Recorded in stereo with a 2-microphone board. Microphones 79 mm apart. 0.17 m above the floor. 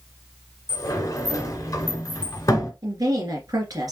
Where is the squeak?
I don't hear a squeak.